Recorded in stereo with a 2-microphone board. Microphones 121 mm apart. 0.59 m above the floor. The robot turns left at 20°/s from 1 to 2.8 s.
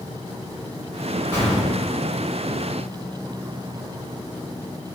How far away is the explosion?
About 1.2 m.